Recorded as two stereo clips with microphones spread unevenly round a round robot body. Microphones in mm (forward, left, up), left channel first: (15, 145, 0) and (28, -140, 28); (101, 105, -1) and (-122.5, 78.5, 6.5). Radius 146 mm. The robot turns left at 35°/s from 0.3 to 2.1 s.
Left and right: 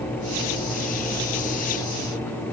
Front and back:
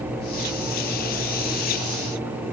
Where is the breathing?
No breathing in this recording.